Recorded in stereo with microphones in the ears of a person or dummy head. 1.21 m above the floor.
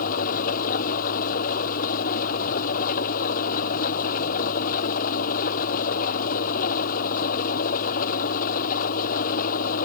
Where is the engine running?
45° left (ahead or behind).